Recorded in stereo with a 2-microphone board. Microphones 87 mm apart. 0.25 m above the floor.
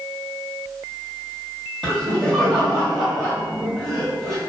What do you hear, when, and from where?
1.8 s laughter: 5° left (ahead or behind), 1.5 m